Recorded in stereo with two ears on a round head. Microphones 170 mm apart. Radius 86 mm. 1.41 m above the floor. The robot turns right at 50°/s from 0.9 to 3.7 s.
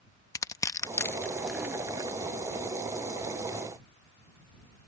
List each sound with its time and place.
0.3 s crushing: 15° left (ahead or behind); by 2.2 s 25° right (ahead or behind)